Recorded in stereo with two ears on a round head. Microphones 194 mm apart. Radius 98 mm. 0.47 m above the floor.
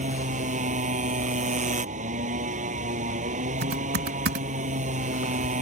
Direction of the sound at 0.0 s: 35° right (ahead or behind).